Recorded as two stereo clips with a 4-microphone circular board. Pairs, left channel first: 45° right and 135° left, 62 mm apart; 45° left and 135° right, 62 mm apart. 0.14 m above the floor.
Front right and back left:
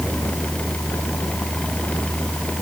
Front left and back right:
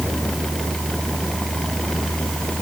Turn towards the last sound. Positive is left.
No sound to turn to.